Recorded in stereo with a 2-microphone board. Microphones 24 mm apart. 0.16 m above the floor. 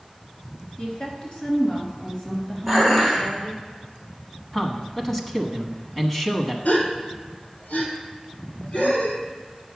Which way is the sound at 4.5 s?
15° left (ahead or behind).